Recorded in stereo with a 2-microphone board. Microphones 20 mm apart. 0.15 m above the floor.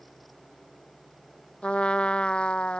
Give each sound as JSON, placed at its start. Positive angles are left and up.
{"t": 1.6, "sound": "a trumpet", "side_deg": 65}